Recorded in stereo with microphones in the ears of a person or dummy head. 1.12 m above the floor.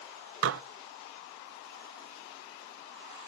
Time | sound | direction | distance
0.4 | dishes clattering | 65° right (ahead or behind) | 0.5 m